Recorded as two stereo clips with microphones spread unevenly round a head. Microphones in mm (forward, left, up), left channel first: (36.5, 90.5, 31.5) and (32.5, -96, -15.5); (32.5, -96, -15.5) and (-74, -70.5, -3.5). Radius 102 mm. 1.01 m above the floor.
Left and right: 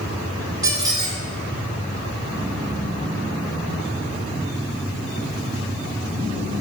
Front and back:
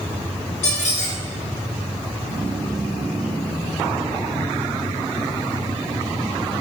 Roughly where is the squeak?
Ahead.